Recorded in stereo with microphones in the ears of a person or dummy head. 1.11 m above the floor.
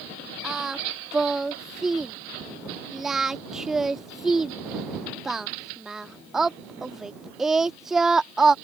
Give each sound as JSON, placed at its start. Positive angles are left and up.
{"t": 0.4, "sound": "singing", "side_deg": -5}